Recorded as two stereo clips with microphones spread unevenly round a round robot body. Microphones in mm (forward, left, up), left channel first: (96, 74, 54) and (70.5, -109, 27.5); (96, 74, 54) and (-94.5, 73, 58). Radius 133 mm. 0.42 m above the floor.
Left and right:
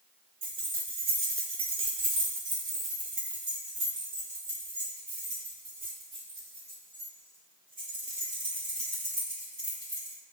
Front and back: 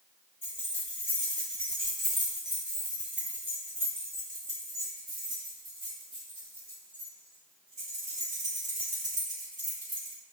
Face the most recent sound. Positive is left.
turn(degrees=-150)